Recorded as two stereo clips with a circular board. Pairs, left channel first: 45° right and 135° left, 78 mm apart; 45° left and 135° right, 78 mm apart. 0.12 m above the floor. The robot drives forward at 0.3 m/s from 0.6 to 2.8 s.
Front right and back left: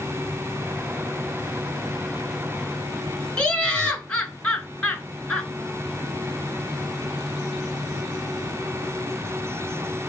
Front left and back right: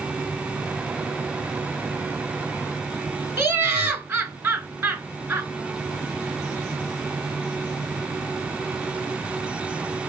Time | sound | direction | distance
3.4 | laughter | 110° right | 1.2 m